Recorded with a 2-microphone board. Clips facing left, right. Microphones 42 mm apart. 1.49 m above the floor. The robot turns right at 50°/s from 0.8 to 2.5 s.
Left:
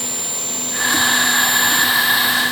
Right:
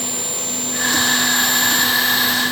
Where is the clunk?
I don't hear a clunk.